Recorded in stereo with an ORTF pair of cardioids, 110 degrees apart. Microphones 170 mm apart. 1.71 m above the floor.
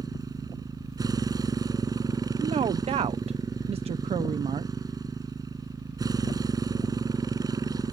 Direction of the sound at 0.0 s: 25° right.